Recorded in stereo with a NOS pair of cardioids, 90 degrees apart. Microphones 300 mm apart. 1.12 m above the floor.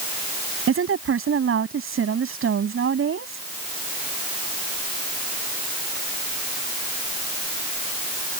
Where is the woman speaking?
45° right.